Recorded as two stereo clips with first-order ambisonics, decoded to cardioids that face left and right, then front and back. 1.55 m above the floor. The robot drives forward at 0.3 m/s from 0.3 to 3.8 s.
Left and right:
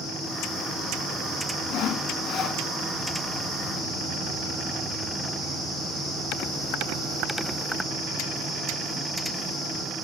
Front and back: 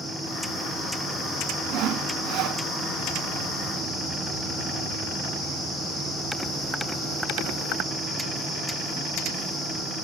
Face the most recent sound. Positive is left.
turn(degrees=155)